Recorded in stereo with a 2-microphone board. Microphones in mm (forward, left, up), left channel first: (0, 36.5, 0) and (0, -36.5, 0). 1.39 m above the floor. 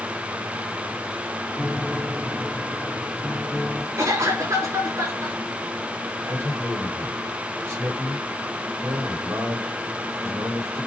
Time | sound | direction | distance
1.6 | a piano | 5° left (ahead or behind) | 1.0 m
4.0 | a cough | 45° right (ahead or behind) | 5 m
6.2 | a man speaking | 40° right (ahead or behind) | 3.5 m